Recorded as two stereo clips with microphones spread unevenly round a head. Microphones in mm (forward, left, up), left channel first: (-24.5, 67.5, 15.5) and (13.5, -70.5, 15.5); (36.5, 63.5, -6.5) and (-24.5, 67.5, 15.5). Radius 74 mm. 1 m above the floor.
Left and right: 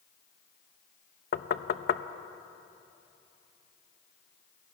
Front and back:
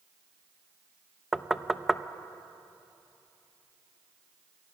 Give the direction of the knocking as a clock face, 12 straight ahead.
9 o'clock.